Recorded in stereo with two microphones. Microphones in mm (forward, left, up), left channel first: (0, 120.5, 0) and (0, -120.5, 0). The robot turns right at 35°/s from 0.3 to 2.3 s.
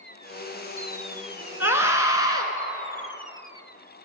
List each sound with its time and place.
1.6 s a scream: 10° right (ahead or behind), 1.2 m; by 2.5 s 15° right (ahead or behind), 1.2 m